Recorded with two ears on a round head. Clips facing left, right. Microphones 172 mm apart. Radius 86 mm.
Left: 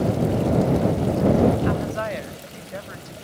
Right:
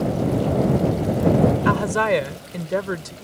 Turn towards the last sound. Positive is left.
turn(degrees=-85)